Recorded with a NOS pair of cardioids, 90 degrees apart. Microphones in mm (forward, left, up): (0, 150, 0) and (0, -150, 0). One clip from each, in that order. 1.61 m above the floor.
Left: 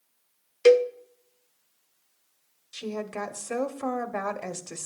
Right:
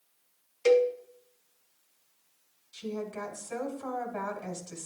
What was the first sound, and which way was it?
A cowbell, 45° left.